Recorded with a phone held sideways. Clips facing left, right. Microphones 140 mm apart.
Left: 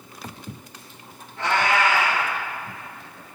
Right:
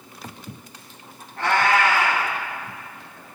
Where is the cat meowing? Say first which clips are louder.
Right 2 dB; 60° right (ahead or behind), 6.5 m.